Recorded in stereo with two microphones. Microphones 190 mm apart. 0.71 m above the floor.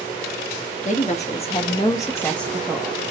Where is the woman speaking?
40° left (ahead or behind), 1.0 m; by 3.1 s 10° right (ahead or behind), 1.0 m.